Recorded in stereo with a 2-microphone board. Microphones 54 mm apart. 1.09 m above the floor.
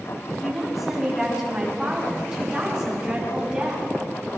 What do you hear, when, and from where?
0.4 s a woman speaking: 5° right (ahead or behind), 8.5 m; by 4.4 s 20° right (ahead or behind), 7 m